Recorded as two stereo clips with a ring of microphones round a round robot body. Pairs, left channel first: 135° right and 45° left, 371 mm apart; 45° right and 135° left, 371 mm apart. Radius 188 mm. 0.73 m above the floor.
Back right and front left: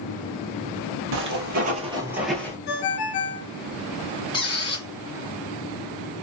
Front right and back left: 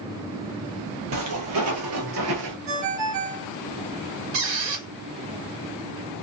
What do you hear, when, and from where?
1.1 s footsteps: 90° left, 1.1 m; by 2.6 s 150° left, 0.8 m
2.7 s a ringtone: straight behind, 1.2 m
4.3 s a squeak: 150° left, 1.3 m